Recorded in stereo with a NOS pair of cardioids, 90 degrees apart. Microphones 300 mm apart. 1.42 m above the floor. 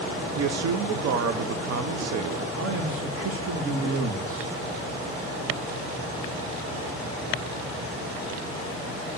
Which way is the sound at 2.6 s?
50° right.